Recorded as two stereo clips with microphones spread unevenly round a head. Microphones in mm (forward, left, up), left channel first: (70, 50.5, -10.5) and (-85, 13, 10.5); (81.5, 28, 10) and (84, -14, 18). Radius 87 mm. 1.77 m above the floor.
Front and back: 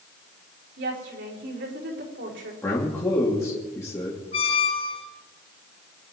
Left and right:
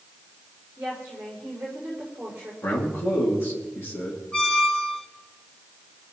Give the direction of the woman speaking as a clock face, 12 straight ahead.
5 o'clock.